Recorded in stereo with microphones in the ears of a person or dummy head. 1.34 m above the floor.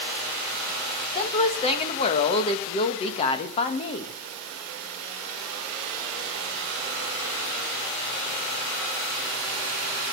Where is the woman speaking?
30° left (ahead or behind), 1.6 m.